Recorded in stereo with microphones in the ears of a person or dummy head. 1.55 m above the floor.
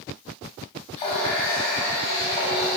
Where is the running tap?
35° left (ahead or behind), 1.1 m.